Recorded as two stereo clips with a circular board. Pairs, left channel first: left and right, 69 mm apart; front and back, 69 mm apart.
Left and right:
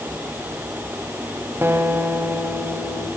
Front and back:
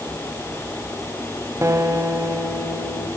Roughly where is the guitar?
Behind right.